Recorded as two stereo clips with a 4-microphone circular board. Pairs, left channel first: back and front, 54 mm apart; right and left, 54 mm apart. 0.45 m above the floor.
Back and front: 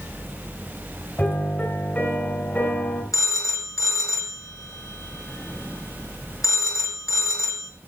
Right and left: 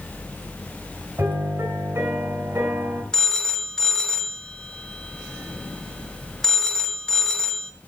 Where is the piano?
120° left, 4 m.